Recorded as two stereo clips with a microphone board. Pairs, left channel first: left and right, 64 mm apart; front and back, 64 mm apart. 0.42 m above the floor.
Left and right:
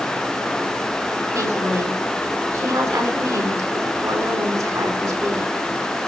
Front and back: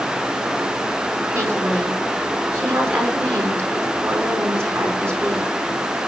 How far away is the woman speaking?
About 5 m.